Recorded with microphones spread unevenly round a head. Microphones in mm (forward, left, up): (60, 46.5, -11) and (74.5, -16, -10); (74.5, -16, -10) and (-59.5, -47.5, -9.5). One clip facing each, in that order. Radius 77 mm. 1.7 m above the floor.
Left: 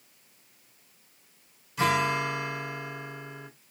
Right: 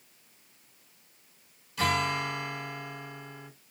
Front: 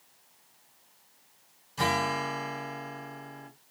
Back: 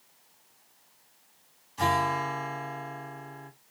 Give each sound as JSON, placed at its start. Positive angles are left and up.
{"t": 1.8, "sound": "a guitar", "azimuth_deg": 35, "distance_m": 2.0}